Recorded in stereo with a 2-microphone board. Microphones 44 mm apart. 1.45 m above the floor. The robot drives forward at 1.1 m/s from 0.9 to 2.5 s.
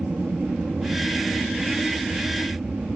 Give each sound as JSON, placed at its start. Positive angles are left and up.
{"t": 0.0, "sound": "an aircraft", "side_deg": -40}